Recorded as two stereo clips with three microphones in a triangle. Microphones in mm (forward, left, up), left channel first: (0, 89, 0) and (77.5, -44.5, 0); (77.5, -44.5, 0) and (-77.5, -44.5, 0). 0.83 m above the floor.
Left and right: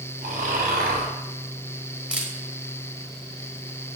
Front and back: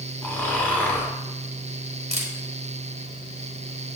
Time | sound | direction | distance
0.2 | snoring | 80° right | 1.9 m
2.1 | a camera shutter | 145° right | 1.2 m